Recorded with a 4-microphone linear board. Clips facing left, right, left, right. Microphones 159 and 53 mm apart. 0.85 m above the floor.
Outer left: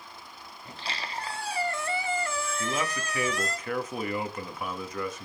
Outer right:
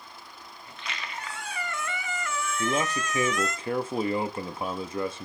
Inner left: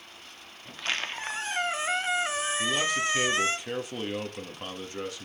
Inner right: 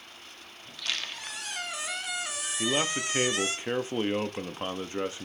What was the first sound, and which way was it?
A squeak, 35° left (ahead or behind).